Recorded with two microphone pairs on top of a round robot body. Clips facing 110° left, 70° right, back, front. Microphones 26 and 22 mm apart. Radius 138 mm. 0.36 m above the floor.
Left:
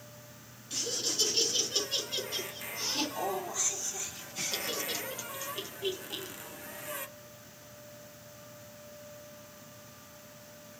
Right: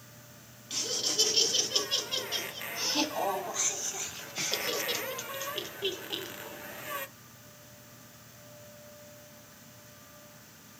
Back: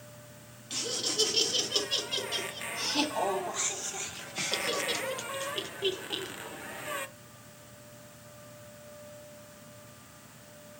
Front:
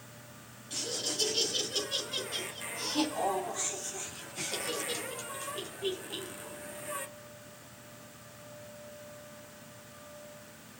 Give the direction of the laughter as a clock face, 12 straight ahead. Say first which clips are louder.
Right 2 dB, back 3 dB; 4 o'clock.